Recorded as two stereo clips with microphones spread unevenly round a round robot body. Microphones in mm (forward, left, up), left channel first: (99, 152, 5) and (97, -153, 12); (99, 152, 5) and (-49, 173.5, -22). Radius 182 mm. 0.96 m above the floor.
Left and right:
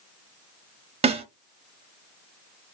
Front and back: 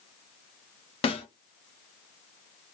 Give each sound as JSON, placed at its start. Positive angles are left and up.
{"t": 1.0, "sound": "a snare drum", "azimuth_deg": -25, "distance_m": 0.6}